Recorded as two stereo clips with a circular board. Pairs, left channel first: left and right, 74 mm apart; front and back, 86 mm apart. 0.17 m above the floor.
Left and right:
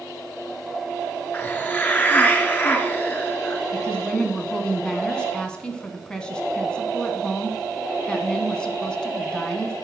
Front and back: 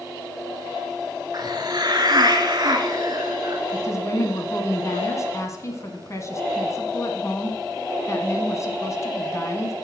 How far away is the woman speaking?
About 1.4 m.